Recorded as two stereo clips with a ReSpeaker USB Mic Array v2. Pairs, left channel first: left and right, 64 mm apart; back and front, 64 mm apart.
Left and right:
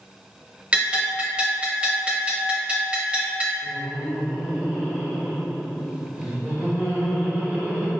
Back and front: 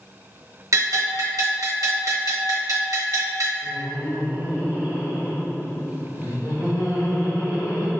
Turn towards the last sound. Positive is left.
turn(degrees=-160)